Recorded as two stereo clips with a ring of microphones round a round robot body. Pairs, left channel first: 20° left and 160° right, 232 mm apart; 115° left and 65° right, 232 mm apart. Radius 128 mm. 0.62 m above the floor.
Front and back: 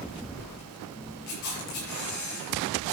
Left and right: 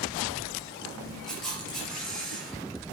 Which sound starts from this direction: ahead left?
A camera shutter, at 1.3 s.